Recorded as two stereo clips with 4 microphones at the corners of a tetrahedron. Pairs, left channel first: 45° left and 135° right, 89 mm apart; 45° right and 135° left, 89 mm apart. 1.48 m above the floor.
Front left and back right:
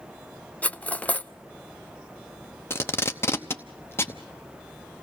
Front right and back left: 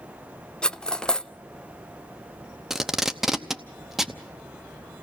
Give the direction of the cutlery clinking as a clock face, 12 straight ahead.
11 o'clock.